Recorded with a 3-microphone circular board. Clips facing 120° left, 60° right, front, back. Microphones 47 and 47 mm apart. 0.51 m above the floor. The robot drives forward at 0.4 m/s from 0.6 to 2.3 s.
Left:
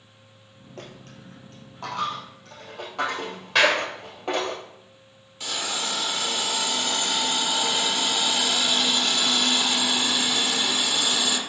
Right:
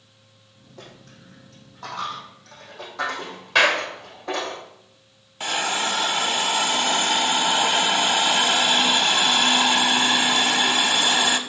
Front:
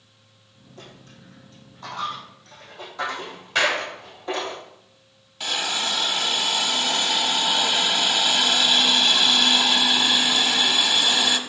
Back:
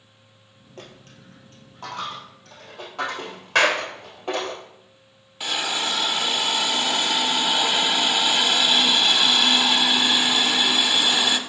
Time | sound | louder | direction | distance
0.8 | a dropped coin | left 2 dB, back 2 dB | 140° left | 2 m
3.5 | a clap | right 1 dB, back 2 dB | 150° right | 1.4 m
5.4 | a hiss | right 6 dB, even | 100° right | 0.6 m